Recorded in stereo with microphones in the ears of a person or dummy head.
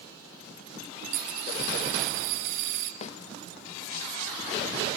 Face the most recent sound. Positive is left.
turn(degrees=40)  # may be behind; listen again after turning